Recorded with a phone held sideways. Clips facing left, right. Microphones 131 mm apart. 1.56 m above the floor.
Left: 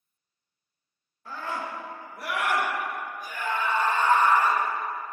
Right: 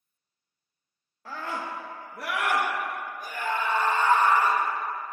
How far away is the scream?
About 1.5 m.